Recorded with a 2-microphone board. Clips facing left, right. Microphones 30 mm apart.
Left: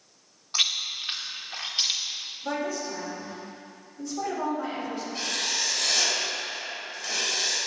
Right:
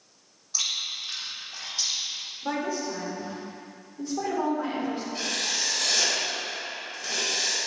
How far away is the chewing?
About 1.0 m.